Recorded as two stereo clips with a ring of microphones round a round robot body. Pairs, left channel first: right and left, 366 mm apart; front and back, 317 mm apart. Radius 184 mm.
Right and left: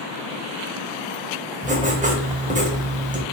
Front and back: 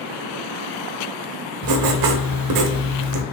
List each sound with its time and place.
1.6 s writing: 160° left, 0.9 m